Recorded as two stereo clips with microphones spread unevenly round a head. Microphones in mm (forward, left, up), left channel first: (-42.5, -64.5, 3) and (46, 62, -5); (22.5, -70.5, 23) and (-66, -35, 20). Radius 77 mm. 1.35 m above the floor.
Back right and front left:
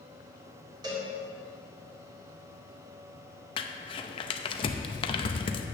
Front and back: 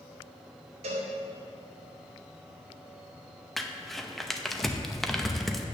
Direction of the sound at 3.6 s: 105° right.